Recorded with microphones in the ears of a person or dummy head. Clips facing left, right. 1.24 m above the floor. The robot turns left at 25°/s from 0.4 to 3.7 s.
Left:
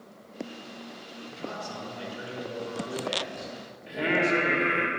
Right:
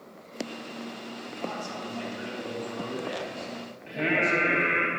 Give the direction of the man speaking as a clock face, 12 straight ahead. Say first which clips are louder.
Right 1 dB; 3 o'clock.